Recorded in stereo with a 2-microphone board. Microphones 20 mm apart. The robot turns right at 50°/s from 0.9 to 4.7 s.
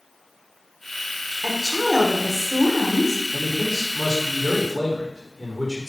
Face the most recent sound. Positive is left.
turn(degrees=-175)